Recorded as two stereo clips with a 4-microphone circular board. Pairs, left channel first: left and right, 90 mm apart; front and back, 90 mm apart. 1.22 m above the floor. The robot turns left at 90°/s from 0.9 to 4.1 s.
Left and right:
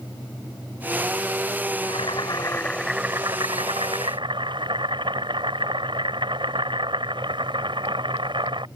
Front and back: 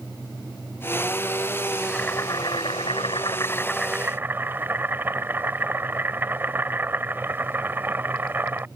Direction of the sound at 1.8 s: 90° left.